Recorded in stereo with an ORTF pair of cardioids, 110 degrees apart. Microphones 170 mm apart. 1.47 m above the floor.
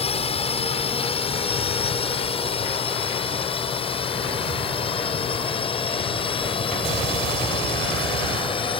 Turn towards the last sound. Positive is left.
turn(degrees=30)